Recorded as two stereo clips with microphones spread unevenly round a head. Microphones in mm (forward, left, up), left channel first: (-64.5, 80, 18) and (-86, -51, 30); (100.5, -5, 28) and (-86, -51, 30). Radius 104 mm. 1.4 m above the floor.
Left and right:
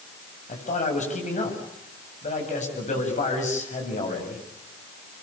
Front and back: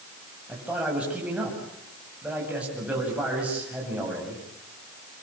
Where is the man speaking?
110° left, 8 m.